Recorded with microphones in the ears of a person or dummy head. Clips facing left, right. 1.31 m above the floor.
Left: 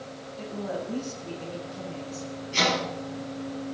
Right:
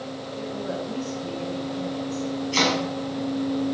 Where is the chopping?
75° right (ahead or behind), 7.5 m.